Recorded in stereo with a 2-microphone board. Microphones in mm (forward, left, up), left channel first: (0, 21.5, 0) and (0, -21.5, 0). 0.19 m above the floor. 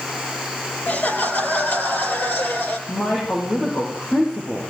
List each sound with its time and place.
0.9 s laughter: 50° left (ahead or behind), 4 m; by 2.8 s 65° left (ahead or behind), 4.5 m
2.9 s a woman speaking: 55° left (ahead or behind), 9 m